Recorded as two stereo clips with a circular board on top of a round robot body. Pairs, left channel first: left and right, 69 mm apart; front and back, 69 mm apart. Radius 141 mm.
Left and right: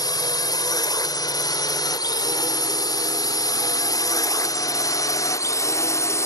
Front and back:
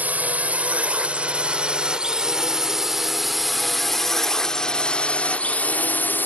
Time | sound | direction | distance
0.0 | a drone | 110° left | ?